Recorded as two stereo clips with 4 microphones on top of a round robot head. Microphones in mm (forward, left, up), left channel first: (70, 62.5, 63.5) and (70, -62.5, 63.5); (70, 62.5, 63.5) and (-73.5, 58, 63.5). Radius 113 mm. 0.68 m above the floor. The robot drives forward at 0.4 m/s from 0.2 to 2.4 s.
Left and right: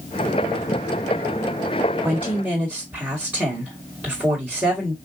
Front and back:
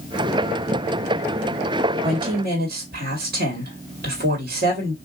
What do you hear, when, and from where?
2.0 s a woman speaking: 170° right, 1.4 m